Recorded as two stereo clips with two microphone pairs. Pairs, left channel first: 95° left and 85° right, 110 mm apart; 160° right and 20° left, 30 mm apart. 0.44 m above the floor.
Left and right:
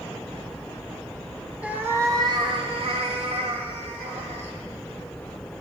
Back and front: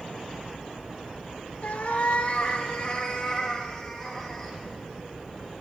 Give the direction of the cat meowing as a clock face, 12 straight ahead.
5 o'clock.